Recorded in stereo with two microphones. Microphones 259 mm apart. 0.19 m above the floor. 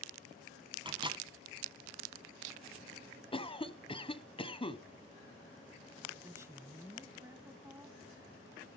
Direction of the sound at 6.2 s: 10° right (ahead or behind).